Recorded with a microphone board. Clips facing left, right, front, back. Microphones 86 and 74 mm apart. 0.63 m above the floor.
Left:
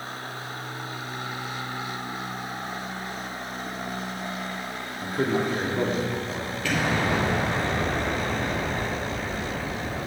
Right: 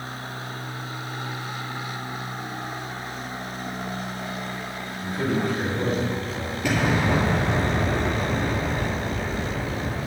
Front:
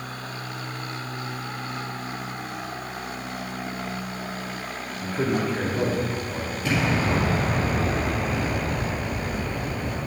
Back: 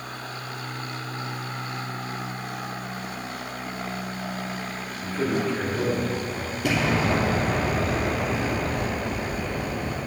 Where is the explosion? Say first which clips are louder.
Right 2 dB, back 1 dB; 165° right, 2.5 m.